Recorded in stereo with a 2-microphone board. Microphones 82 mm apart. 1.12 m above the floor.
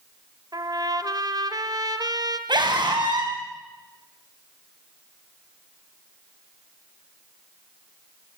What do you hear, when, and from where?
0.5 s a trumpet: 55° right (ahead or behind), 1.6 m
2.5 s a scream: 65° right (ahead or behind), 6.5 m